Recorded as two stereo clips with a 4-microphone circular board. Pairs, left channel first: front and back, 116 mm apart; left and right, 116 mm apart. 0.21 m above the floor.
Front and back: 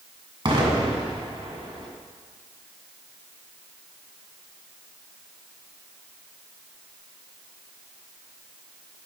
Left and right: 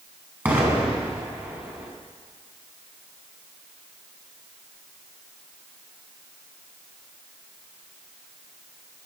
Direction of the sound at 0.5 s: 160° right.